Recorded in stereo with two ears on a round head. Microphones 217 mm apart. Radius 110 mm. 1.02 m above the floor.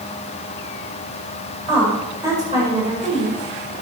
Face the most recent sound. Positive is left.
turn(degrees=-30)  # may be behind; listen again after turning